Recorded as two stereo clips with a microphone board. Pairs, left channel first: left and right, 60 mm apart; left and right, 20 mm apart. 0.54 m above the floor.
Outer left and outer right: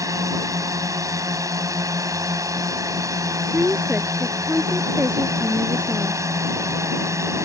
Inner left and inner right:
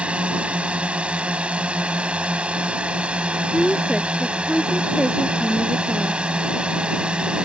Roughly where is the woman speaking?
Right.